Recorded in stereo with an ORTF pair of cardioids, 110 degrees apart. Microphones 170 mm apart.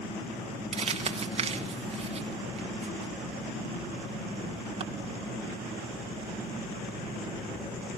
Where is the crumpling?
35° right, 1.9 m.